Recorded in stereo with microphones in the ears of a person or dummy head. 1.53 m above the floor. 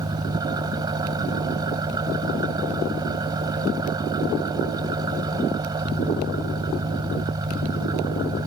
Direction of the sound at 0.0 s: 20° right (ahead or behind).